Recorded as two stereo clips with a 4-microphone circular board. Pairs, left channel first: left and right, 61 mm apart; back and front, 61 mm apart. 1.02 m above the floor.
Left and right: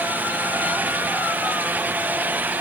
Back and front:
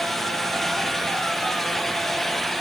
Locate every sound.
Only background noise.